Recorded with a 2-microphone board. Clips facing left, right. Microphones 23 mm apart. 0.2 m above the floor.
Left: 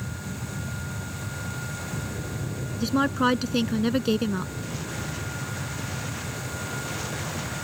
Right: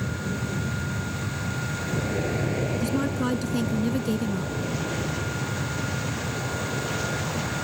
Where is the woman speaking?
40° left (ahead or behind).